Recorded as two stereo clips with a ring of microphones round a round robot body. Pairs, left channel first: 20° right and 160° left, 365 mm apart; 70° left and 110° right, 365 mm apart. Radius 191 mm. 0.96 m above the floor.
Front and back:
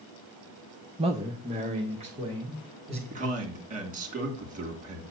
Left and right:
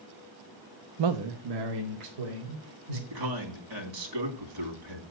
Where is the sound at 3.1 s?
135° right, 2.5 m.